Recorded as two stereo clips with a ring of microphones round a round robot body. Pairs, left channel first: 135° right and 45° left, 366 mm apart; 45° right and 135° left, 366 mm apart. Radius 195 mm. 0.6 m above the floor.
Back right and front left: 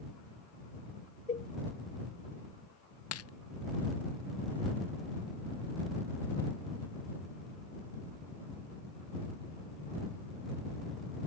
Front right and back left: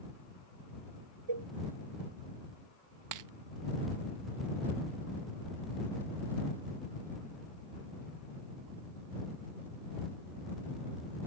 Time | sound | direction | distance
1.3 | a cowbell | 155° left | ?
3.1 | a dropped coin | 175° left | ?